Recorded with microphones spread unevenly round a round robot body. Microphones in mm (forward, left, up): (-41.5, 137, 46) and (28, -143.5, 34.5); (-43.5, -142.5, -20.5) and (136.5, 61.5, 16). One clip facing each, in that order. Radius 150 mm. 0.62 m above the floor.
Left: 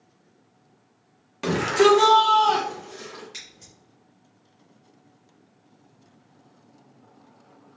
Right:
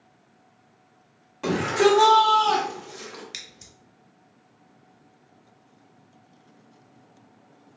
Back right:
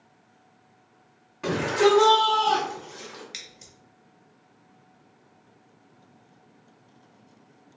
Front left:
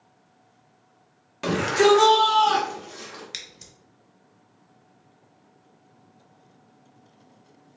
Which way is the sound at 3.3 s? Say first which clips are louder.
Right 1 dB, front left 1 dB; 20° right.